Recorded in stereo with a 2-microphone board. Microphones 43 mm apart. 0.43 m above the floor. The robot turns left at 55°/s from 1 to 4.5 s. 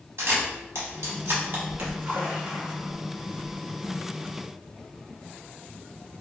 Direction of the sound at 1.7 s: 70° right (ahead or behind).